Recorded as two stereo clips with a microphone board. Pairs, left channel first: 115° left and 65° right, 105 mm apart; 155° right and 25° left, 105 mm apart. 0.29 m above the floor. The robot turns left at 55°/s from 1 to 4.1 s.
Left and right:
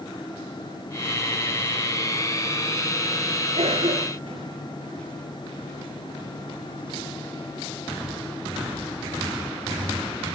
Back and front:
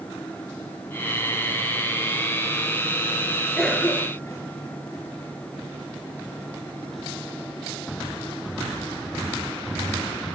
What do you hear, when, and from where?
3.6 s a cough: 70° right, 5.5 m; by 4.5 s 100° right, 5.5 m